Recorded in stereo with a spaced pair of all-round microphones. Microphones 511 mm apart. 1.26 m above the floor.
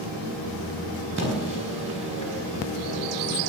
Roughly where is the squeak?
Left.